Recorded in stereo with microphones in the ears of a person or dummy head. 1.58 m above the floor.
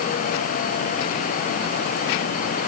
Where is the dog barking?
I don't hear a dog barking.